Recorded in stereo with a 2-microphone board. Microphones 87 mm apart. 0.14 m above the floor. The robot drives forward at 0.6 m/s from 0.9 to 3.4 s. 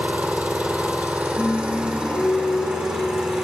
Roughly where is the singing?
Centre.